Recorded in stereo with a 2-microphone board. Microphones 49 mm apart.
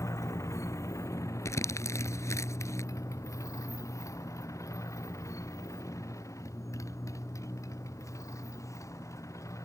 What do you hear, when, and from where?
0.0 s a motorcycle: 70° left (ahead or behind); by 9.7 s 85° left
1.4 s crumpling: 75° left (ahead or behind)